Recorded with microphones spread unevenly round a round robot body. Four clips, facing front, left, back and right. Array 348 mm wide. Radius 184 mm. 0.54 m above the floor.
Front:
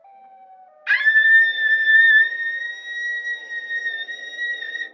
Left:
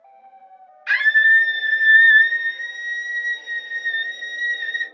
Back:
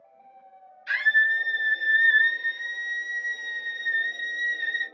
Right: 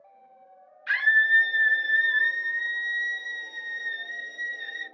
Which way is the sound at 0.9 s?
5° right.